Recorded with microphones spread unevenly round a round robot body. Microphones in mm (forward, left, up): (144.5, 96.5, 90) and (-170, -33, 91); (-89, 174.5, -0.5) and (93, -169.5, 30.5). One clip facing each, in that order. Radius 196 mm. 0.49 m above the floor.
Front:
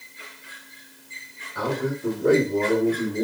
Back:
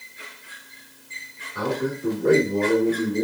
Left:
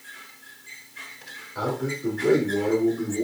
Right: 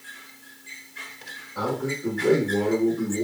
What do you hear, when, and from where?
1.6 s a man speaking: 160° left, 1.6 m; by 3.2 s 130° right, 1.3 m